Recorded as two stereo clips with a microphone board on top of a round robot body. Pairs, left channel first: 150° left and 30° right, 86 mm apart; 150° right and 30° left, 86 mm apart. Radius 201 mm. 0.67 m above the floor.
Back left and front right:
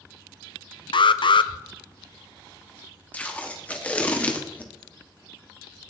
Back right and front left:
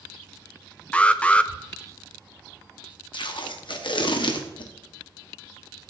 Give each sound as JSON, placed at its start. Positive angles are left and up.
{"t": 0.9, "sound": "an alarm", "azimuth_deg": 135, "distance_m": 0.6}
{"t": 3.1, "sound": "tape being pulled", "azimuth_deg": -135, "distance_m": 1.5}